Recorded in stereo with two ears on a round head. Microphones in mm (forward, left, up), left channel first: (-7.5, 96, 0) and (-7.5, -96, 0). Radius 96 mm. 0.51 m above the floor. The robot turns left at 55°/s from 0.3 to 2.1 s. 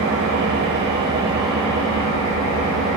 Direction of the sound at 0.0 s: 115° right.